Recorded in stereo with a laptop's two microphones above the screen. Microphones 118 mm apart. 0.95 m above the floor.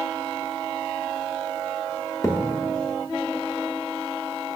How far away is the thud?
About 0.7 m.